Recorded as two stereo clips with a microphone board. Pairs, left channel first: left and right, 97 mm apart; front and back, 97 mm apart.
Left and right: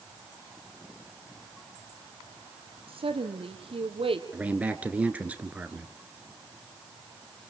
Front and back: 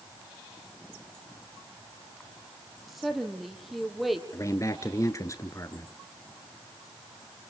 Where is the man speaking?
25° right, 1.3 m.